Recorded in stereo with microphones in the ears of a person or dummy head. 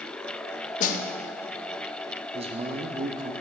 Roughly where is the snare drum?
Left.